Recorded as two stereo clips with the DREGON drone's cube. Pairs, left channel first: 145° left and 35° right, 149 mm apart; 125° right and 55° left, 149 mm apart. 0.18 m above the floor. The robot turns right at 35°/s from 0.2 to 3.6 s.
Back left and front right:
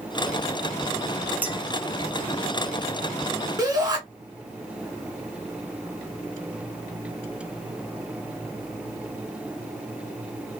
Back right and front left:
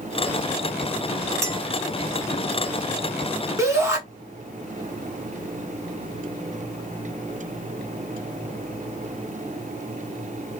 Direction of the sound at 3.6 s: Straight ahead.